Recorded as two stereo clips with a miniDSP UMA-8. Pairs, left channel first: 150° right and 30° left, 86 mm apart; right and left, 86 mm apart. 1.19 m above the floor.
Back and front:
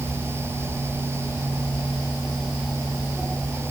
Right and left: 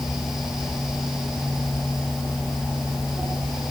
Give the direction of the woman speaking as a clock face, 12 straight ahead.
No woman speaking in this recording.